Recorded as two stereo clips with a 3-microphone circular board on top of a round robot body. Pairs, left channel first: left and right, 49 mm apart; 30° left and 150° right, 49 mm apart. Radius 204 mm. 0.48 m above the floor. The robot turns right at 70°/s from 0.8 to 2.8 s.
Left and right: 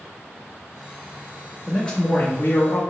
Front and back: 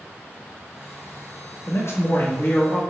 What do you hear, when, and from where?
1.7 s a man speaking: 5° left, 1.1 m; by 2.8 s 85° left, 1.1 m